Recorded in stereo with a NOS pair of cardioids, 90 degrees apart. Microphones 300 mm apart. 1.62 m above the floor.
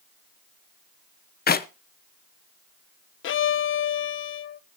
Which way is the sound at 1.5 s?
30° left.